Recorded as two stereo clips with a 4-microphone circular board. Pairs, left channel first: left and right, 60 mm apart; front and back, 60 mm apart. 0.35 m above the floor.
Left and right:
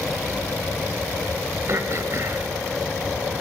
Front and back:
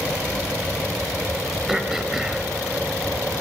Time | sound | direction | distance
1.7 | throat clearing | 100° right | 1.2 m